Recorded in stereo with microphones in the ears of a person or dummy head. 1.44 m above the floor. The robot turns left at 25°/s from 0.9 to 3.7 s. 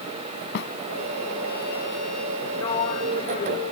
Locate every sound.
0.6 s a snare drum: 70° left (ahead or behind)
2.6 s a sliding door: 15° left (ahead or behind); by 3.6 s 40° left (ahead or behind)